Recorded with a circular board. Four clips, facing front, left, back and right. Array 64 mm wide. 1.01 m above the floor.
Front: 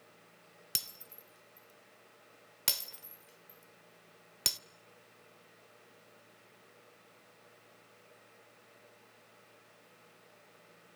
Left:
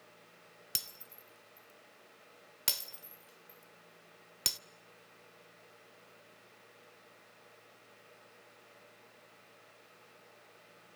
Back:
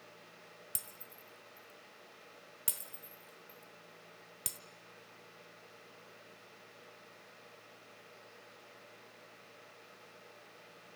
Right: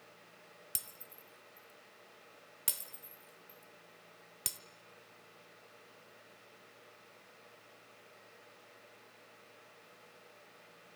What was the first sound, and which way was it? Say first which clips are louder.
Breaking glass: left 3 dB, front 2 dB; 35° left.